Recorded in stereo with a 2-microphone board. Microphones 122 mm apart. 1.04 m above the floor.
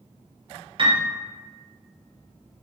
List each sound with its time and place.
0.8 s a piano: 45° right (ahead or behind), 0.7 m